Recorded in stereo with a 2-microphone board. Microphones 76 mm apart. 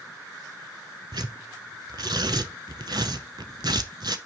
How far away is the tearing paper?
About 0.5 m.